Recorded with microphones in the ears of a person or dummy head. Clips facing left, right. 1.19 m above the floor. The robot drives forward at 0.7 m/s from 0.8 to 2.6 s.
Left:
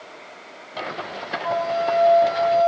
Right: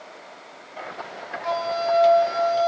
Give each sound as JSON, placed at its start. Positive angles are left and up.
{"t": 1.4, "sound": "a flute", "side_deg": -35, "distance_m": 8.0}